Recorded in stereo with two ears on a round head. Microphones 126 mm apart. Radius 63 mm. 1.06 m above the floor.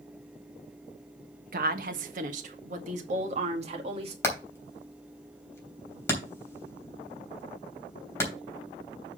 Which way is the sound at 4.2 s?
20° left (ahead or behind).